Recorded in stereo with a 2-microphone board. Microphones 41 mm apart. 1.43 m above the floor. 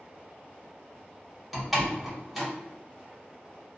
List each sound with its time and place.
1.5 s a door slam: 5° right (ahead or behind), 0.9 m